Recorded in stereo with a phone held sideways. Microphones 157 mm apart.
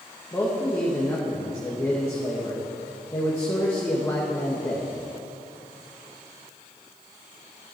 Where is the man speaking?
15° left (ahead or behind), 1.9 m.